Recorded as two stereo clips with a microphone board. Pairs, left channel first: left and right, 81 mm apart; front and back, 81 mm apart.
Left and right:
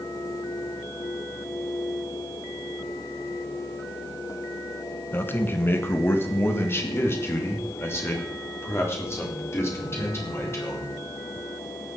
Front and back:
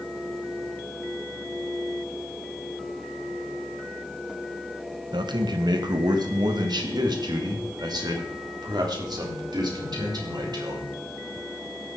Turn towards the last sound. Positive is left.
turn(degrees=150)